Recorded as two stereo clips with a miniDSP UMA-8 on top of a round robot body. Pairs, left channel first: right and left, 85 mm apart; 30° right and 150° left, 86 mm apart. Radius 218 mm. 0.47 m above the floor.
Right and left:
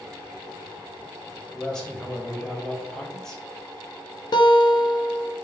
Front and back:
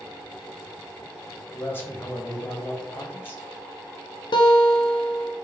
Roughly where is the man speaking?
Ahead.